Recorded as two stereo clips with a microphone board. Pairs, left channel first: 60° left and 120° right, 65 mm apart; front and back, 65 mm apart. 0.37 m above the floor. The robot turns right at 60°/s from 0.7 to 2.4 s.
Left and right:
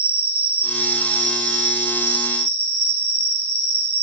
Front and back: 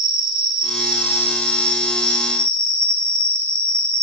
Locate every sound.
0.0 s an insect: 105° left, 1.0 m; by 4.0 s 150° right, 1.0 m